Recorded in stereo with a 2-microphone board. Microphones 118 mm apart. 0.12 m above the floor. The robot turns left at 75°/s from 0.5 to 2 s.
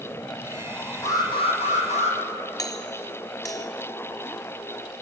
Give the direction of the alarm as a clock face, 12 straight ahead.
7 o'clock.